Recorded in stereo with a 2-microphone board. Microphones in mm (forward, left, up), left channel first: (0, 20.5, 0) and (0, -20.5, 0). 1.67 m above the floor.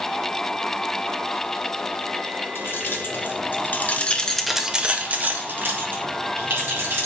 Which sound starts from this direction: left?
Keys jangling, at 2.5 s.